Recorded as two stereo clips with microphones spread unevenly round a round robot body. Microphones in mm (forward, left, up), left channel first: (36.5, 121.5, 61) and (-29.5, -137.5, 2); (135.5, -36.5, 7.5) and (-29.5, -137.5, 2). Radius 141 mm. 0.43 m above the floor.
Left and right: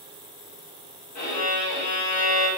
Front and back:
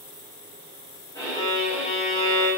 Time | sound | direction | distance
1.1 | a violin | 105° left | 2.5 m